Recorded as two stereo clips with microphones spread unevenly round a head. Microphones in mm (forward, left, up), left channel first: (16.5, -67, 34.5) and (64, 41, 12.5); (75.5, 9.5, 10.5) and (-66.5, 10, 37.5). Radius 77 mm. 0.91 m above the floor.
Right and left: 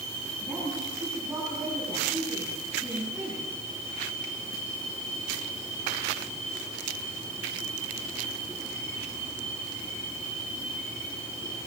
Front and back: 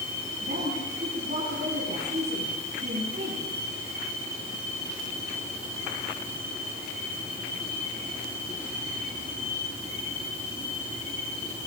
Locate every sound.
0.4 s a woman speaking: 150° left, 9.5 m